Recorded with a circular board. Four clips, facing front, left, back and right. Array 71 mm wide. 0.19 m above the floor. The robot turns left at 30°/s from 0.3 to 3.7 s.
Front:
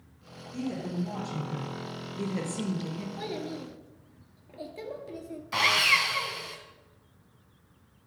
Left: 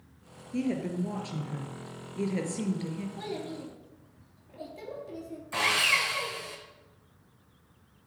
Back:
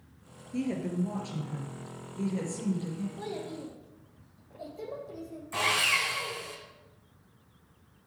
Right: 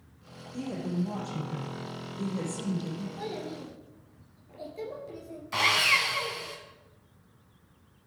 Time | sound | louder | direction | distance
0.5 | a woman speaking | left 3 dB, back 2 dB | 115° left | 3.5 m
3.2 | a child speaking | even, front 2 dB | 15° left | 3 m
5.5 | sawing | right 2 dB, front 3 dB | 25° right | 1.7 m